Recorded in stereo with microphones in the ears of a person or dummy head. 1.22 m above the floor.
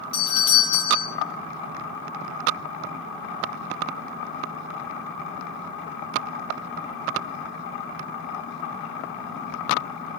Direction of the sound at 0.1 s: 25° left (ahead or behind).